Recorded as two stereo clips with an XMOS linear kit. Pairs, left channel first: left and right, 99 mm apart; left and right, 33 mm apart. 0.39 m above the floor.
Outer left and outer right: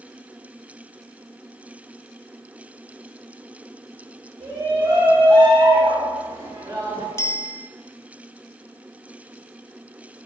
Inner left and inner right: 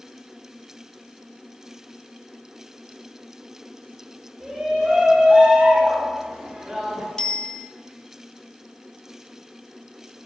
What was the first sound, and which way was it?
A shout, 35° right (ahead or behind).